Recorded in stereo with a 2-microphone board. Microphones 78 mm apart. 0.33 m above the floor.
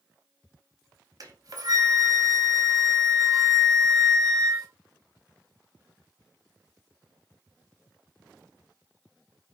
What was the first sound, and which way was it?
A flute, 55° right (ahead or behind).